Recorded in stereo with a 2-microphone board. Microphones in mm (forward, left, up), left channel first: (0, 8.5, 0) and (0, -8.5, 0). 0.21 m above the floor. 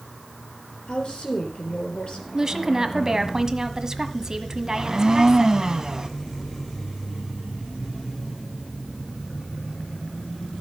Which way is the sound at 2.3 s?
35° right (ahead or behind).